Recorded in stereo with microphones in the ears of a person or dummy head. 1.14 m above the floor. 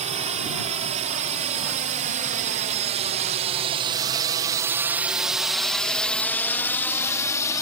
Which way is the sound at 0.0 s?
35° right (ahead or behind).